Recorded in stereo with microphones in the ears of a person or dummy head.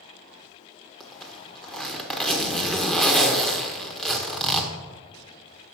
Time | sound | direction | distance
1.0 | a zipper | 5° left (ahead or behind) | 1.5 m